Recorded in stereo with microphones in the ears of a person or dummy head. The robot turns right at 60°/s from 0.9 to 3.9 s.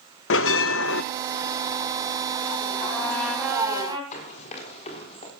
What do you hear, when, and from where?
0.3 s a bell: 65° left (ahead or behind), 0.6 m; by 1.0 s 60° left (ahead or behind), 0.6 m
2.8 s a trumpet: 140° left, 1.8 m; by 4.0 s 155° right, 1.8 m
4.1 s running footsteps: 40° left (ahead or behind), 3 m; by 5.3 s 30° left (ahead or behind), 3 m